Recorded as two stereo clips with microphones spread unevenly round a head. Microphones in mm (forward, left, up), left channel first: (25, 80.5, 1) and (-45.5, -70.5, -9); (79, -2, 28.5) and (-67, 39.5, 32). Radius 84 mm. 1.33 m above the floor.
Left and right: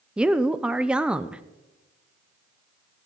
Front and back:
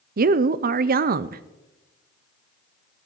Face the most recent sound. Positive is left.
turn(degrees=165)